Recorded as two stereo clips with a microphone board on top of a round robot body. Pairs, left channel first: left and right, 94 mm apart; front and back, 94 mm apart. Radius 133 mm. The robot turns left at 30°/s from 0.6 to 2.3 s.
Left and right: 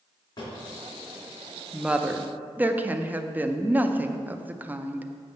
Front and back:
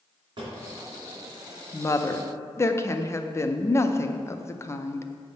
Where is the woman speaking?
15° right, 0.7 m; by 5.1 s 30° right, 0.7 m.